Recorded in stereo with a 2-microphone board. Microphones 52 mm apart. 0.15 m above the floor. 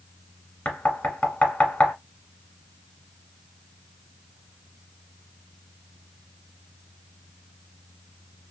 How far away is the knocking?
About 1.2 m.